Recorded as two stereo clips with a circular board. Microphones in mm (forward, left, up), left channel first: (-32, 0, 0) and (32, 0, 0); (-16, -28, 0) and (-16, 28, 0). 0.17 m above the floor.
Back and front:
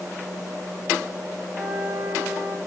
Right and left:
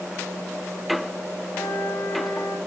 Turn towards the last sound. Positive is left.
turn(degrees=-55)